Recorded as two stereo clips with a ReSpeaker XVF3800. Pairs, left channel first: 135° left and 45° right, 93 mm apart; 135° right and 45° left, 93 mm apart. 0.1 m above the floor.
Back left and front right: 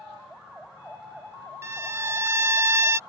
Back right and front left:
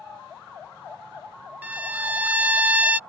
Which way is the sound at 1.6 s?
15° right.